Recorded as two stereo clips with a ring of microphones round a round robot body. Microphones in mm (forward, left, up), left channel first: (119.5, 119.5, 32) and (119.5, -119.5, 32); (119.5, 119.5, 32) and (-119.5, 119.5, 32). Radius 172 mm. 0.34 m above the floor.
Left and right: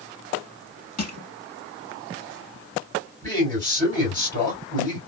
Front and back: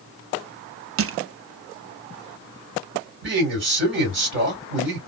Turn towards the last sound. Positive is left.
turn(degrees=170)